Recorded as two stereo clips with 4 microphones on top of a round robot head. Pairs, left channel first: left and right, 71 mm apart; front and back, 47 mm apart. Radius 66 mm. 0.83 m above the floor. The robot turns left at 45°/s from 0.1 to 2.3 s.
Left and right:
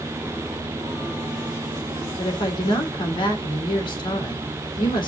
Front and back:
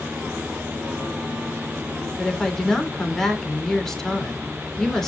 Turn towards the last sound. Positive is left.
turn(degrees=80)